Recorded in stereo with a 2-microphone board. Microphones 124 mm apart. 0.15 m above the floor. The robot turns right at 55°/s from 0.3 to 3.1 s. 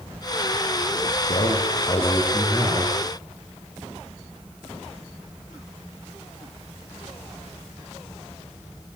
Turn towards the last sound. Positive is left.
turn(degrees=-140)